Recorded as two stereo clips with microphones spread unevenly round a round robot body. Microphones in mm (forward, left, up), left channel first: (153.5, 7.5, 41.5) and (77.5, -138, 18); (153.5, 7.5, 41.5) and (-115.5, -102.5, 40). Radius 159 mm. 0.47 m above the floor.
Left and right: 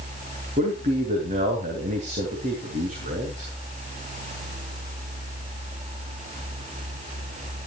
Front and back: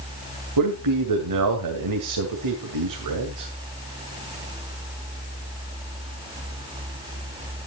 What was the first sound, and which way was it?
A man speaking, 165° right.